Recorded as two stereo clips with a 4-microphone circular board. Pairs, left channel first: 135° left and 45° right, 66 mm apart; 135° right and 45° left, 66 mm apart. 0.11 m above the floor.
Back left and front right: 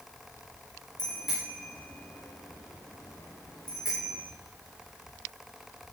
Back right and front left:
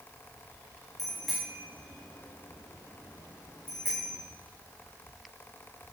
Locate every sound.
1.0 s a bicycle bell: 130° left, 7 m; by 4.2 s 160° left, 7 m